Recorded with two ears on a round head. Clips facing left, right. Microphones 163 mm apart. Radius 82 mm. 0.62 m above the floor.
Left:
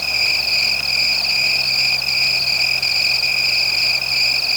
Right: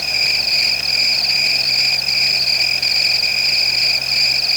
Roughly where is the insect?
Centre.